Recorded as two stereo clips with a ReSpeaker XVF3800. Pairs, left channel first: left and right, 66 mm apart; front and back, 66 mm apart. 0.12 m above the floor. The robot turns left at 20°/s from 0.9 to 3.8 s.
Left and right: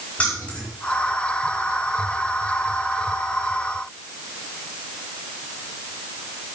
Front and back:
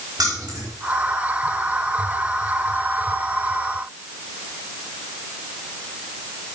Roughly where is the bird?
No bird in this recording.